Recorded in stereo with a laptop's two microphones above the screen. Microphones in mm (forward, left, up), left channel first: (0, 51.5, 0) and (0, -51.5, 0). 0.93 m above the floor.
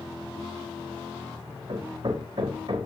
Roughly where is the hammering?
Right.